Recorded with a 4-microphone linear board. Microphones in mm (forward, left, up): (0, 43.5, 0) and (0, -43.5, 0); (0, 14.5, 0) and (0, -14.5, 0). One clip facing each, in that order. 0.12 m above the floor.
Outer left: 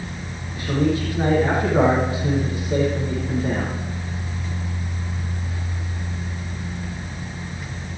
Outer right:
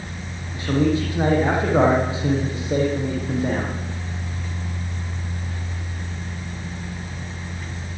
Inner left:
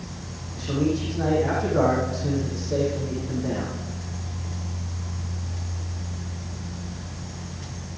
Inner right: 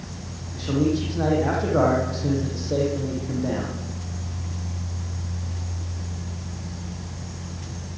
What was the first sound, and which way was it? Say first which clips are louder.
A man speaking: outer right 1 dB, inner right 2 dB; 25° right (ahead or behind).